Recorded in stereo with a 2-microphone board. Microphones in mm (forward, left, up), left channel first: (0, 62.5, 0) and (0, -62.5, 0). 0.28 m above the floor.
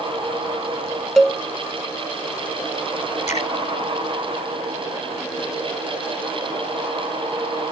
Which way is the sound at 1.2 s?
5° left (ahead or behind).